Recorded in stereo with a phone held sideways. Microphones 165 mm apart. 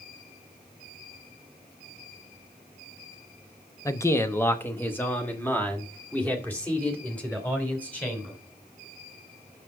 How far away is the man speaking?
About 0.7 m.